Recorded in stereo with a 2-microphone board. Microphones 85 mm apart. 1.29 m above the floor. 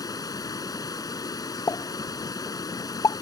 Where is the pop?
50° left (ahead or behind).